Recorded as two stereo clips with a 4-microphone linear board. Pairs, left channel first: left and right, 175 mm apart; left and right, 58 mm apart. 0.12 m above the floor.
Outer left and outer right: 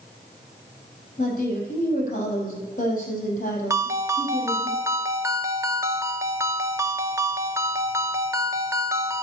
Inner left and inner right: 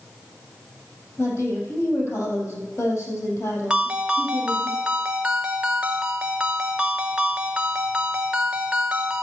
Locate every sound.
1.2 s a woman speaking: 45° left (ahead or behind), 3.5 m
3.7 s a ringtone: 15° right (ahead or behind), 0.6 m